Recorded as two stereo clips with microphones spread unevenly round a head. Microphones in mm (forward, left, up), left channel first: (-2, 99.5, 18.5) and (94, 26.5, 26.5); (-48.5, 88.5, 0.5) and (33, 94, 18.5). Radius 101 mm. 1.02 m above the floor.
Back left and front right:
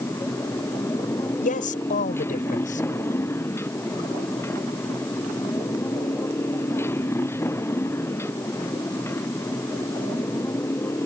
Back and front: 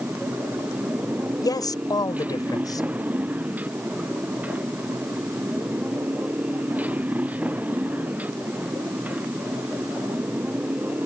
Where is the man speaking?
145° left.